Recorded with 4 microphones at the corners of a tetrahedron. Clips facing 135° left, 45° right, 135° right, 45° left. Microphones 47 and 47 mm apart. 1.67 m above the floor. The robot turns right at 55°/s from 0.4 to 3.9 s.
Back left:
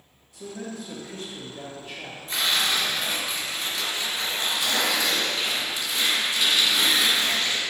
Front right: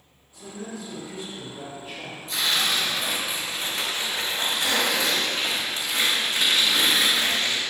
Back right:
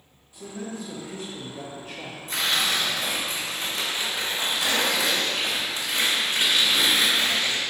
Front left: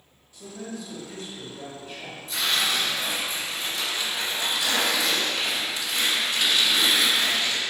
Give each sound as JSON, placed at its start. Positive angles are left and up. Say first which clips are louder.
{"t": 0.3, "sound": "a man speaking", "louder": "back left 1 dB, back right 2 dB", "azimuth_deg": 150, "distance_m": 1.8}
{"t": 2.3, "sound": "tearing paper", "louder": "even, back right 1 dB", "azimuth_deg": -170, "distance_m": 2.0}